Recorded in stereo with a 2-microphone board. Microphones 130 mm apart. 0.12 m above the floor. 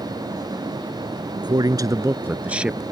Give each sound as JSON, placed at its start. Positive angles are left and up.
{"t": 1.4, "sound": "a man speaking", "side_deg": -35}